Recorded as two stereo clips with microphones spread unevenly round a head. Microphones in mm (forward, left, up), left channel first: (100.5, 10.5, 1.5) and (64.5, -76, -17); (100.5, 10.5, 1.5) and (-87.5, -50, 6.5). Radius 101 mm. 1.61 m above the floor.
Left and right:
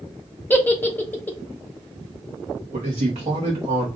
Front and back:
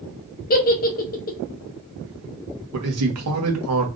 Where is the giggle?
25° left, 0.9 m.